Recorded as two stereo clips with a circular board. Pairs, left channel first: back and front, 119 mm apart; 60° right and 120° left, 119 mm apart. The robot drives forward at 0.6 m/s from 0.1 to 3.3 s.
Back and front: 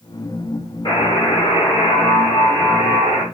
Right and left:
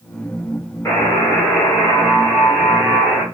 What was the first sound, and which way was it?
A buzzer, 130° right.